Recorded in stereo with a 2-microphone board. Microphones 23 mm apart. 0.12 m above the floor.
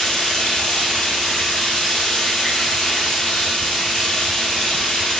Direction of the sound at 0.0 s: 40° left (ahead or behind).